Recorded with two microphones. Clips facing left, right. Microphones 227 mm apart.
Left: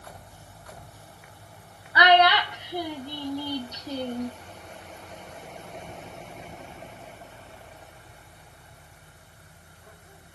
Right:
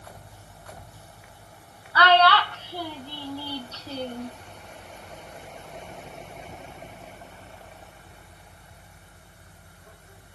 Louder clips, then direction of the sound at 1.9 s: Even; 15° left (ahead or behind).